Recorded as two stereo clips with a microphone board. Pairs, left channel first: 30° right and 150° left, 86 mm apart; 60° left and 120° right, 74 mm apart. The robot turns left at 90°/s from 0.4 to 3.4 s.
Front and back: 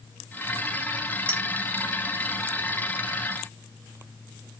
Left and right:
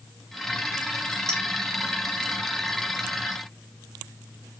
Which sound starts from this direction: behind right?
A clink, at 1.3 s.